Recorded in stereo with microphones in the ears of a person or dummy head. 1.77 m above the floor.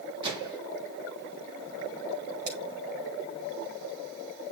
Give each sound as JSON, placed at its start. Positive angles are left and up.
{"t": 0.2, "sound": "a microwave", "side_deg": -25, "distance_m": 3.0}
{"t": 2.5, "sound": "scissors", "side_deg": -50, "distance_m": 7.0}